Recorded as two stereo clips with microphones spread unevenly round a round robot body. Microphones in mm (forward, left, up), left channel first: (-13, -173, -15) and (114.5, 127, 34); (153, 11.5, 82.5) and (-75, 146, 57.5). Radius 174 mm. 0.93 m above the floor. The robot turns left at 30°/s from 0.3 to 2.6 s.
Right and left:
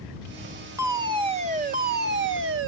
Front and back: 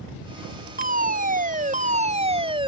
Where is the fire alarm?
155° left; by 2.7 s 100° left.